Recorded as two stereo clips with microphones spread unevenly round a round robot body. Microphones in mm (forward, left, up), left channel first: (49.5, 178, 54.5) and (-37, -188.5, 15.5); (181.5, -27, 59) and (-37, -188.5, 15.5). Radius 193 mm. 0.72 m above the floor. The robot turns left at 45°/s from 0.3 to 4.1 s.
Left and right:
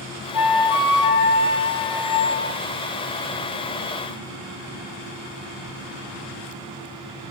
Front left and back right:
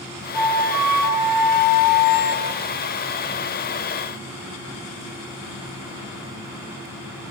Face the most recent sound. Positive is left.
turn(degrees=-50)